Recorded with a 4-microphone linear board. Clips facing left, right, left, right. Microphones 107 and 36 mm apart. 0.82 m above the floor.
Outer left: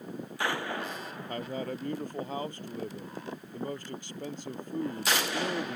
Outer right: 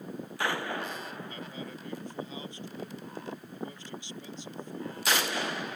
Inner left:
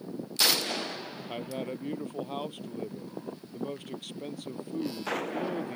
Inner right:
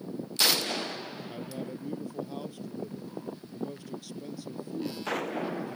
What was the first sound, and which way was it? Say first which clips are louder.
A man speaking: outer left 6 dB, inner left 5 dB; 50° left (ahead or behind).